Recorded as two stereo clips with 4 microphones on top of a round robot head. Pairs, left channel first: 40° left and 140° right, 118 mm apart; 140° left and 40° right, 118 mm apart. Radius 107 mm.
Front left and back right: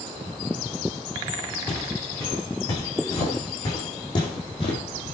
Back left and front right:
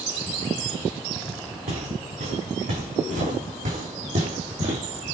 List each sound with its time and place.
1.7 s footsteps: 30° right, 7 m; by 4.8 s 5° right, 3 m